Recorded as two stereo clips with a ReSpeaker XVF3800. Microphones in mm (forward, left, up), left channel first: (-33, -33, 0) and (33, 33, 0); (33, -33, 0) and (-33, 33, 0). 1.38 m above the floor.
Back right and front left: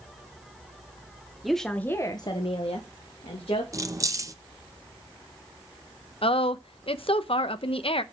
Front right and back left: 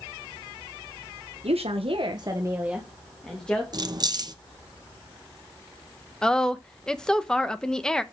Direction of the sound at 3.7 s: 95° left.